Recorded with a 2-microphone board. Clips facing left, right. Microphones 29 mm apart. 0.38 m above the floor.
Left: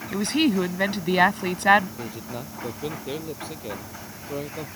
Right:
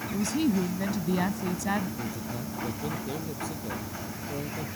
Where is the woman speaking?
70° left (ahead or behind).